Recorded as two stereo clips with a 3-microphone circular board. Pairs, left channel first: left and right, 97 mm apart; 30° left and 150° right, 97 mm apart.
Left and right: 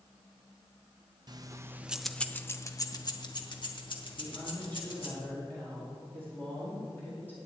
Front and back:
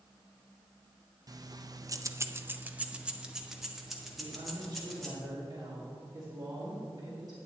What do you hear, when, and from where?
1.3 s keys jangling: 115° right, 0.6 m; by 5.2 s 120° left, 1.9 m
4.2 s a woman speaking: 160° left, 2 m